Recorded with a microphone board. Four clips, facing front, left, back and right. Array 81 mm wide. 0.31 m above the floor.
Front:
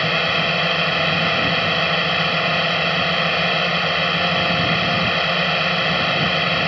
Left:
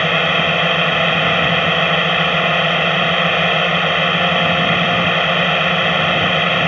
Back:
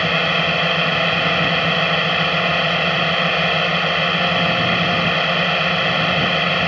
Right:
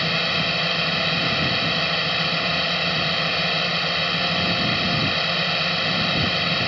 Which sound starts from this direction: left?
A drone, at 0.0 s.